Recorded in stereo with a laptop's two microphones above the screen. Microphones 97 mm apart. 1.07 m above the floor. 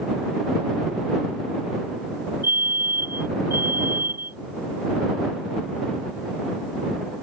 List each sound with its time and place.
2.4 s a fire alarm: 25° right (ahead or behind)